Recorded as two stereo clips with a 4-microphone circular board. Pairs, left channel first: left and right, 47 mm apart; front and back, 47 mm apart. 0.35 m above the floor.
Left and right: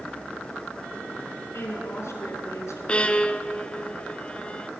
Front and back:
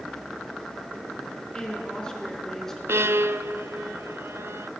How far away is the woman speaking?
About 4.5 m.